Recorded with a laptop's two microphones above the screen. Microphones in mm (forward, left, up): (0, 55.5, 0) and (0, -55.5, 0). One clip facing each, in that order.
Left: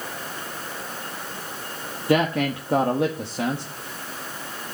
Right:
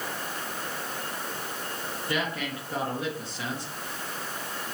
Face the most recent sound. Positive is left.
turn(degrees=75)  # may be behind; listen again after turning